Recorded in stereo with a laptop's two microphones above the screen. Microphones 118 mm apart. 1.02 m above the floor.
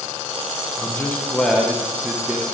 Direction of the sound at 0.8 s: 20° left (ahead or behind).